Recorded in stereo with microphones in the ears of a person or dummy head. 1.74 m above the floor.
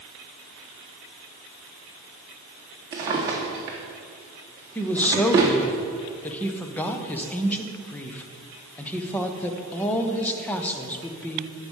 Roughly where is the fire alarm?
No fire alarm in this recording.